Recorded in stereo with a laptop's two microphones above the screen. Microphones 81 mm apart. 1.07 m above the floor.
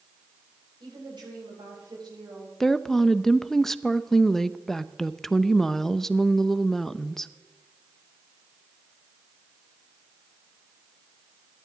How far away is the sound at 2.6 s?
About 0.7 m.